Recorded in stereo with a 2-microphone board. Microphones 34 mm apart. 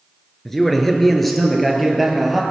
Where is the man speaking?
5° left (ahead or behind), 1.6 m; by 2.4 s 5° right (ahead or behind), 2.5 m.